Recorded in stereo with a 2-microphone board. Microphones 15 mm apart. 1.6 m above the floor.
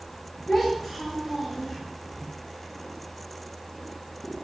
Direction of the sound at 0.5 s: 10° right (ahead or behind).